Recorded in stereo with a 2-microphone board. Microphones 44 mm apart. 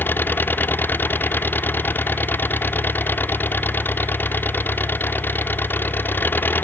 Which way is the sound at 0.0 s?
45° left (ahead or behind).